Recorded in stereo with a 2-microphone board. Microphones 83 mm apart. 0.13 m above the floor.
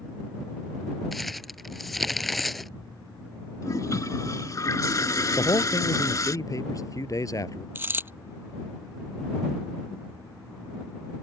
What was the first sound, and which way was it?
Crumpling, centre (ahead or behind).